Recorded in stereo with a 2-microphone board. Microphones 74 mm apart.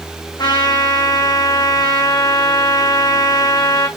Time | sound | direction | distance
0.4 | a trumpet | 75° left (ahead or behind) | 4.5 m